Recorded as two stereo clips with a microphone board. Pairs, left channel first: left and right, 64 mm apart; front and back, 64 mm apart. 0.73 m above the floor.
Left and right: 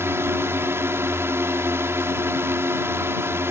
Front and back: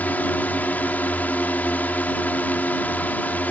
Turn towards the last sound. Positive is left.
turn(degrees=-55)